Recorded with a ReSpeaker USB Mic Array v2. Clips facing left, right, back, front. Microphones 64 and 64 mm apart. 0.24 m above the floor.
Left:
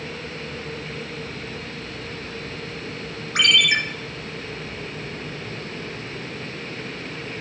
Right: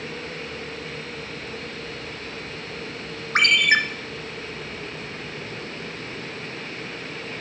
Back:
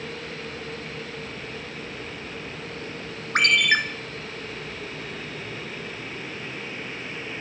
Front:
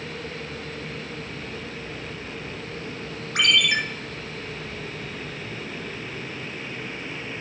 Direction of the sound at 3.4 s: 140° right.